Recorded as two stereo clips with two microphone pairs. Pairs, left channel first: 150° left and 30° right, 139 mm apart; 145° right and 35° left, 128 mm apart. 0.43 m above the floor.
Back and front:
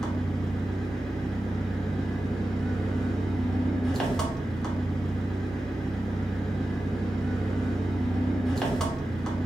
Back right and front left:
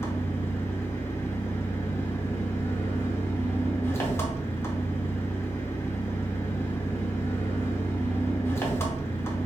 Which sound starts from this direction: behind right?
An engine running, at 0.0 s.